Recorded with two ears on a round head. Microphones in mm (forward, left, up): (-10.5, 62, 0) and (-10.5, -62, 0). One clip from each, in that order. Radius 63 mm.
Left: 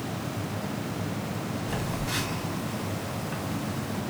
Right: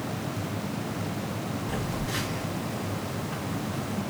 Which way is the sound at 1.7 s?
70° left (ahead or behind).